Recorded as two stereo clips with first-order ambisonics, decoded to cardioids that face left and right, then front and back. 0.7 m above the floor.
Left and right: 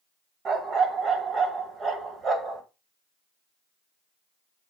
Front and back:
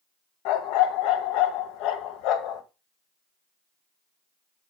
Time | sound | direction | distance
0.5 | a dog barking | 25° right | 1.4 m